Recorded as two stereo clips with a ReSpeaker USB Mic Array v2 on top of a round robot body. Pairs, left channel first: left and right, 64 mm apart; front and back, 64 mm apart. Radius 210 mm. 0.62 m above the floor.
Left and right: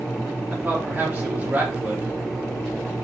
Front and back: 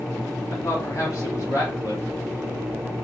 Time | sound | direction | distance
0.5 | a man speaking | 30° right | 3 m